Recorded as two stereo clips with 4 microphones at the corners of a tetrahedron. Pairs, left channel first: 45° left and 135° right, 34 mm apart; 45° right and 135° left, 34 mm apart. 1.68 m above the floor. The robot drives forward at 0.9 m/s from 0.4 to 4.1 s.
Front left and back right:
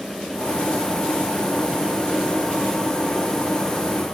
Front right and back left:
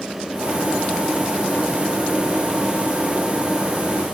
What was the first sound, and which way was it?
Only background noise.